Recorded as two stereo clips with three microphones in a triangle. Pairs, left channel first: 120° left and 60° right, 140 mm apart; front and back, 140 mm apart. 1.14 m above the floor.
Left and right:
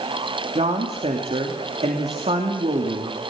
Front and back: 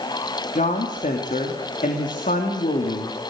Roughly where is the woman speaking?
Ahead.